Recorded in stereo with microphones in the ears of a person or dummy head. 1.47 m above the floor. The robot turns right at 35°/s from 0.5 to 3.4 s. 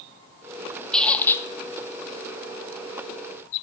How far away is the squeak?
About 0.7 m.